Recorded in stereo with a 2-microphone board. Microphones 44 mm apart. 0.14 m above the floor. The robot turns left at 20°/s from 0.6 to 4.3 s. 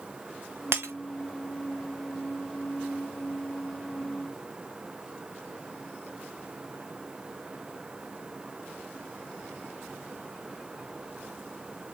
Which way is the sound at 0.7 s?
60° right (ahead or behind).